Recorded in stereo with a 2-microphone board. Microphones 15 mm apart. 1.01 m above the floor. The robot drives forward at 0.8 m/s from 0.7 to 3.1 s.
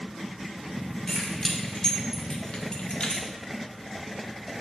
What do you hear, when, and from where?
1.1 s keys jangling: 40° left (ahead or behind), 2.5 m; by 3.3 s 80° left, 1.5 m